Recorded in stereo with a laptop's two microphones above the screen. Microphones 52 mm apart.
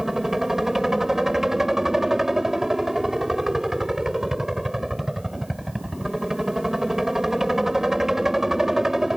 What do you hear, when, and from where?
0.0 s a helicopter: 10° right (ahead or behind)